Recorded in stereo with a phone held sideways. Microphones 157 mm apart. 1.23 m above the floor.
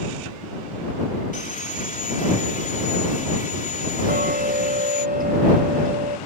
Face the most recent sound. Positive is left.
turn(degrees=-80)